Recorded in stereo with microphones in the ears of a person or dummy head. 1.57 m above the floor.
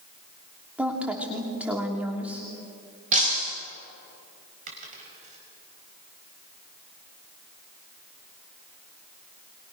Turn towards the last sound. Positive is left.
turn(degrees=-40)  # may be behind; listen again after turning